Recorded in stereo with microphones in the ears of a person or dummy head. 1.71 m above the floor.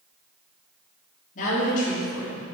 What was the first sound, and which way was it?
A woman speaking, 50° left (ahead or behind).